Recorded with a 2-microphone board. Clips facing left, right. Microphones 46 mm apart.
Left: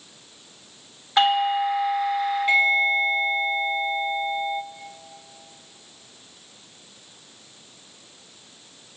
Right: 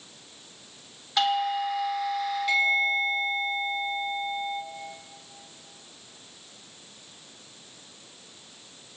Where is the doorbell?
30° left (ahead or behind), 1.4 m.